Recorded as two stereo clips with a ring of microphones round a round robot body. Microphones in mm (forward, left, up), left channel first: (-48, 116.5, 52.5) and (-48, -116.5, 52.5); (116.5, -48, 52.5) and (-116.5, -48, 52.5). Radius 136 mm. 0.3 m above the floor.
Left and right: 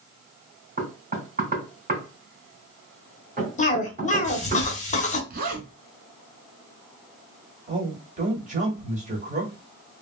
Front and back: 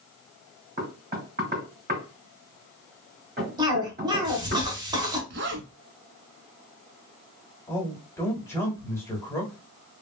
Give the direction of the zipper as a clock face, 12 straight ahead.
5 o'clock.